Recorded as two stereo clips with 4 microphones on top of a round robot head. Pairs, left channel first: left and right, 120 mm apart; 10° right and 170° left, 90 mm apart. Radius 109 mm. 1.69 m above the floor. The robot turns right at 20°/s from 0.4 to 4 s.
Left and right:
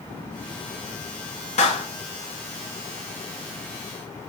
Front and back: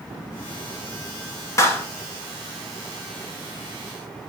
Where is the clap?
45° left, 1.3 m; by 1.9 s 55° left, 1.3 m.